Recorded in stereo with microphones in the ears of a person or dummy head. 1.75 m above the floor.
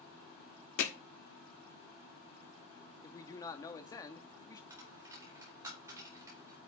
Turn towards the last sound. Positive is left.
turn(degrees=-10)  # may be behind; listen again after turning